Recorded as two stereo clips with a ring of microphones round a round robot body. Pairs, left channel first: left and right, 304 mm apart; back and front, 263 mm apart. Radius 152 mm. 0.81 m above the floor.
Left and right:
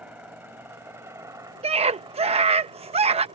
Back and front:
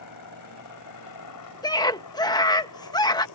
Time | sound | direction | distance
0.0 | a helicopter | 175° right | ?
1.6 | a scream | 125° right | ?